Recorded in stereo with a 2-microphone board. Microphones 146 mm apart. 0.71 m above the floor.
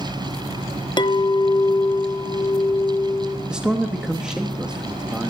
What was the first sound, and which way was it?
A clink, 30° left (ahead or behind).